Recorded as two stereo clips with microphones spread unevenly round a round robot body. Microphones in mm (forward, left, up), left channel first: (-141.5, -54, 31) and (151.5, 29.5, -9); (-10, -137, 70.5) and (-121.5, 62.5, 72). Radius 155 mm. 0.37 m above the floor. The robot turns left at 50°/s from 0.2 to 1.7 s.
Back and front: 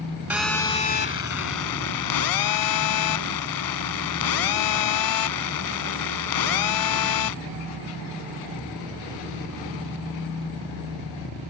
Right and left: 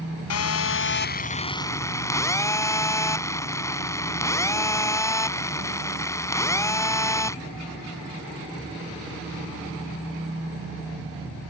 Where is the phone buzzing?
70° right; by 7.3 s 140° right.